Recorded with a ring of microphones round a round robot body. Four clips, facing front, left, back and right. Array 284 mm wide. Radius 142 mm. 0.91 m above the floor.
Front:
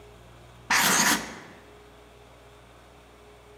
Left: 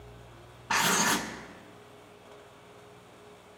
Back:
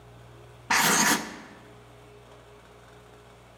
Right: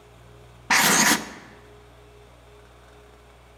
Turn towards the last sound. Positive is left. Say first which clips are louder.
# right 6 dB, back 1 dB
turn(degrees=-90)